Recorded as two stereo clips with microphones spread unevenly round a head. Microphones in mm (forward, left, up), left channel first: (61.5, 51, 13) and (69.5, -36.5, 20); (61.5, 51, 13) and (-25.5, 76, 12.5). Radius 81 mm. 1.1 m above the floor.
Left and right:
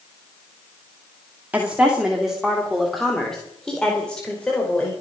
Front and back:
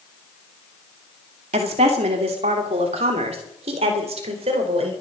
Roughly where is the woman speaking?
Behind.